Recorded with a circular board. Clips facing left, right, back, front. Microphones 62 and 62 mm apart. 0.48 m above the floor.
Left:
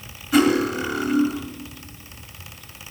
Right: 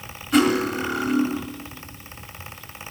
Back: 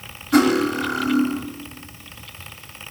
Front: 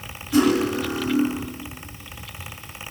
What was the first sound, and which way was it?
Cutlery clinking, 175° left.